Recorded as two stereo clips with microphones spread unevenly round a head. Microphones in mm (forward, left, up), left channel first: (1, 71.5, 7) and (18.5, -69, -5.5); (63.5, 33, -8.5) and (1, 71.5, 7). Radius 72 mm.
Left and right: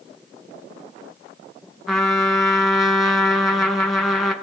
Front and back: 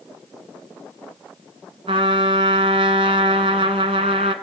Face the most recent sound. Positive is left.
turn(degrees=-175)